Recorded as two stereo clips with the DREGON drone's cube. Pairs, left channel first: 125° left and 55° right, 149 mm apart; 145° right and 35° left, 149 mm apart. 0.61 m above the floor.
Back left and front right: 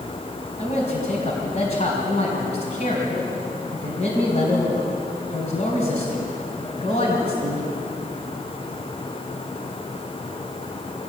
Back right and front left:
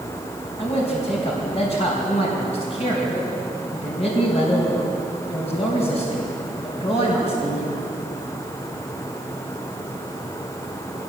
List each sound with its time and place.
0.6 s a man speaking: 170° left, 4 m